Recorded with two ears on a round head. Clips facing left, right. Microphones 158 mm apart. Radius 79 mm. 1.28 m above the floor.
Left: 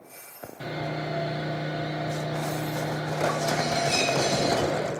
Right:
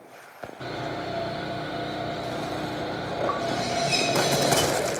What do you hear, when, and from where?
0.6 s sawing: 15° left (ahead or behind), 1.3 m